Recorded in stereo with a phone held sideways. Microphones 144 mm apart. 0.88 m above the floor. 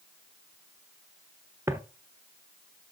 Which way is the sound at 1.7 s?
20° right (ahead or behind).